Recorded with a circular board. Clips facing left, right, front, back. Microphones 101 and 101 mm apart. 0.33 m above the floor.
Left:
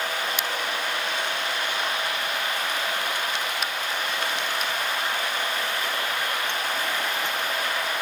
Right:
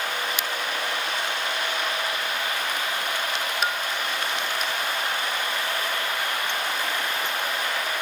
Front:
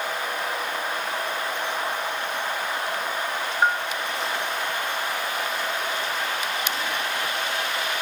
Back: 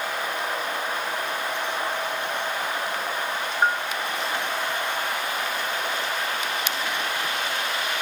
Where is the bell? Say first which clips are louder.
Right 4 dB, front 1 dB; 85° right.